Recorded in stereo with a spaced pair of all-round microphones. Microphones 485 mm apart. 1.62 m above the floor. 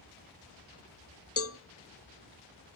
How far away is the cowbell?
About 0.5 m.